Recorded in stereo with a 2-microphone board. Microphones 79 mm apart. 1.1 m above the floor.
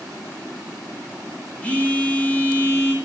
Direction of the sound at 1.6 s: 20° left (ahead or behind).